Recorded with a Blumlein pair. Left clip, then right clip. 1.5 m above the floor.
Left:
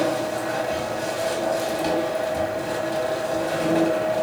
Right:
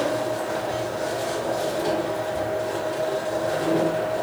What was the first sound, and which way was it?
A machine running, 65° left.